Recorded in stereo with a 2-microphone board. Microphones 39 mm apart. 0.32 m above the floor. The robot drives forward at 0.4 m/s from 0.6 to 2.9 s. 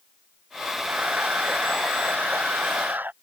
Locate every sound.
0.9 s a camera shutter: 45° right (ahead or behind); by 3.1 s 50° right (ahead or behind)